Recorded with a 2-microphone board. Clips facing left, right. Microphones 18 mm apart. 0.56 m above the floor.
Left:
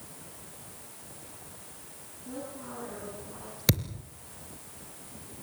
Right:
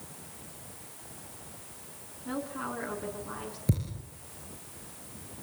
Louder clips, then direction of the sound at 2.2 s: Right 5 dB; 80° right.